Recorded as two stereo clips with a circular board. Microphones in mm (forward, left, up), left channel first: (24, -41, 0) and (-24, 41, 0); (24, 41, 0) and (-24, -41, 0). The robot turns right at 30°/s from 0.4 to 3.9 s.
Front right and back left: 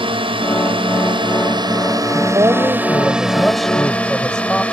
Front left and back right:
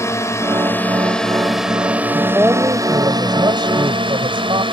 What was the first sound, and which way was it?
A drone, 115° left.